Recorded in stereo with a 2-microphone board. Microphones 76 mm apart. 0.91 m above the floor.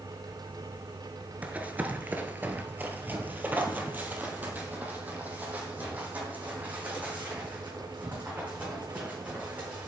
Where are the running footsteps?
20° right (ahead or behind), 0.9 m.